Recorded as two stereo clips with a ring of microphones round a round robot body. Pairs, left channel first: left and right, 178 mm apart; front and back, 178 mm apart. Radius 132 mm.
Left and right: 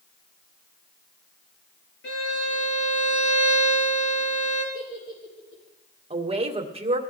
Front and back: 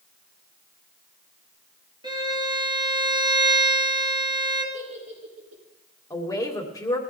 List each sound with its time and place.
2.0 s a violin: 115° left, 4 m
4.7 s a giggle: 135° left, 6 m
6.1 s a woman speaking: 60° right, 1.7 m